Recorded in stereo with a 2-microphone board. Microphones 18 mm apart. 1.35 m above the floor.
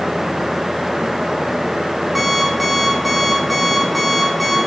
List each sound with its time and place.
2.1 s an alarm clock: 5° right (ahead or behind), 5.5 m